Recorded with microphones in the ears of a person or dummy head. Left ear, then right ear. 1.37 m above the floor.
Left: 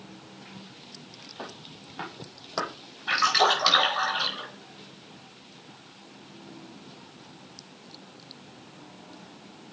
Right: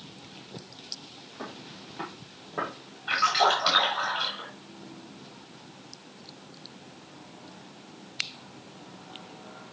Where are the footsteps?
20° left (ahead or behind), 2.5 m; by 2.7 s 40° left (ahead or behind), 2.5 m.